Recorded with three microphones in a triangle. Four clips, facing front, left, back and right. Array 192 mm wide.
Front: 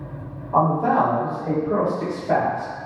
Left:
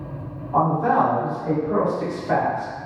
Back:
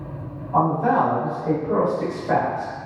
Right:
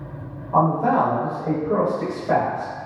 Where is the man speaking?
45° right, 1.0 m; by 2.7 s 140° right, 1.4 m.